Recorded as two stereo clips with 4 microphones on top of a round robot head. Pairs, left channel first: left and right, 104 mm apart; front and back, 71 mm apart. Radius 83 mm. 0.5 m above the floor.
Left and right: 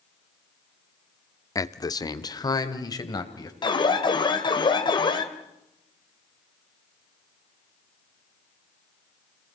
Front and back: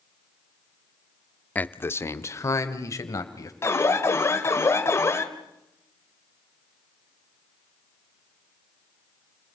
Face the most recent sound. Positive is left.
turn(degrees=50)